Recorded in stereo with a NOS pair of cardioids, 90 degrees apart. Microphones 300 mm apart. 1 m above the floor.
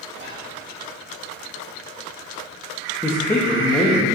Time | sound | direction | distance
0.1 | whispering | 40° right | 1.8 m
3.0 | a man speaking | 5° left | 0.9 m